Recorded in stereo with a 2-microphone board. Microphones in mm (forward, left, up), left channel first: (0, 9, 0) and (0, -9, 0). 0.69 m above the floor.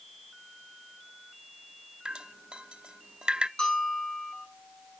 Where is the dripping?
55° right (ahead or behind), 0.6 m.